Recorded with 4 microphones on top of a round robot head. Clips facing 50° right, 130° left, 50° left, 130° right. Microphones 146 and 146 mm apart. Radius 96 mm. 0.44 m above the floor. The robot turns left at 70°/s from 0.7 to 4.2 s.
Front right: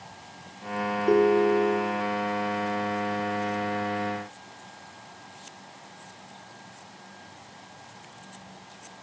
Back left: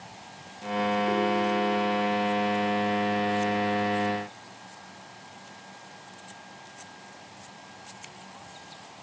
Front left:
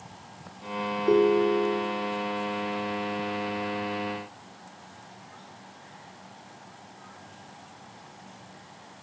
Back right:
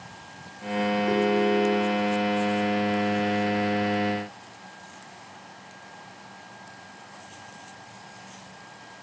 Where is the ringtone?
5° right, 1.3 m; by 2.0 s 70° right, 1.3 m.